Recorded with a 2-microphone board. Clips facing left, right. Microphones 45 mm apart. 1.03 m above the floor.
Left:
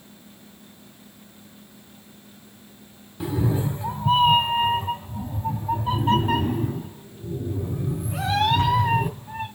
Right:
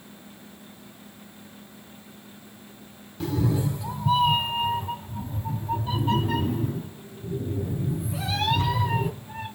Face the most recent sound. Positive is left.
turn(degrees=65)  # may be behind; listen again after turning